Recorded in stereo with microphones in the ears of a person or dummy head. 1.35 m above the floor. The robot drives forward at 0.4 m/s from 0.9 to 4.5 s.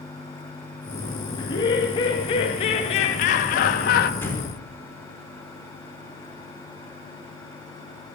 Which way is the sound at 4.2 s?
10° left (ahead or behind).